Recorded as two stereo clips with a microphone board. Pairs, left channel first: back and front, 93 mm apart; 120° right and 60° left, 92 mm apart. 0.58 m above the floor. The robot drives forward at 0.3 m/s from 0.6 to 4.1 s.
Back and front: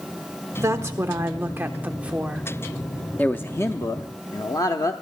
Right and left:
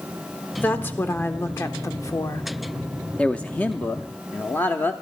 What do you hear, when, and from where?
0.6 s a woman speaking: 55° right, 1.3 m; by 2.5 s 80° right, 1.1 m
3.2 s a man speaking: 170° right, 0.6 m; by 4.9 s 175° right, 0.7 m